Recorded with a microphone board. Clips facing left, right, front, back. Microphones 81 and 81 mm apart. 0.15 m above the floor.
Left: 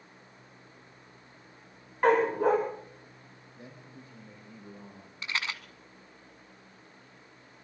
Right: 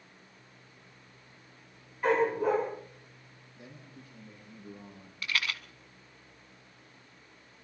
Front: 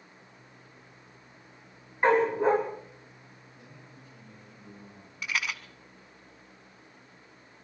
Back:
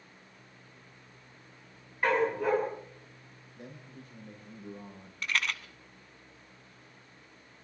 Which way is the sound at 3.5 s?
150° left.